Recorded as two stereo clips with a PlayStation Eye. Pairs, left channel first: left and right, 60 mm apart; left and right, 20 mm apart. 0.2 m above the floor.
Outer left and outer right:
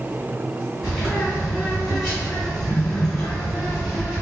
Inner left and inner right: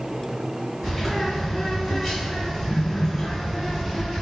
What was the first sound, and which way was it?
A bird, 5° left (ahead or behind).